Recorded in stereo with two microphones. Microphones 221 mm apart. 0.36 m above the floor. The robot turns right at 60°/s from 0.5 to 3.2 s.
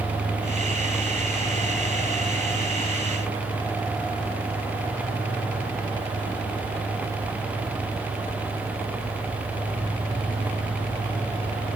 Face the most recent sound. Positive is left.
No sound to turn to.